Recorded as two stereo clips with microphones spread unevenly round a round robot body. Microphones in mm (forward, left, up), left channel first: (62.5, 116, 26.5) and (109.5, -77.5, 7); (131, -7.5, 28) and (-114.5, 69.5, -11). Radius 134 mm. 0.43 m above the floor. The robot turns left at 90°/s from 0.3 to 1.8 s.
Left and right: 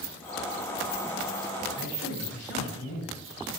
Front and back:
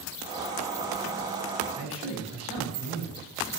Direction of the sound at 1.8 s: 95° left.